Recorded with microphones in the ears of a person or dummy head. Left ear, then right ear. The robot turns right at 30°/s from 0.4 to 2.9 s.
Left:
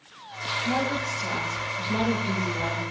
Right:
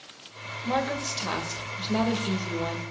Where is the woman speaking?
85° right, 1.9 m; by 2.8 s 20° right, 1.9 m.